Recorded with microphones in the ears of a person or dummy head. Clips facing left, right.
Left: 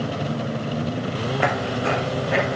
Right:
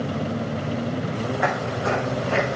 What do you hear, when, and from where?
1.4 s footsteps: 40° left (ahead or behind), 1.6 m; by 2.6 s 15° left (ahead or behind), 1.6 m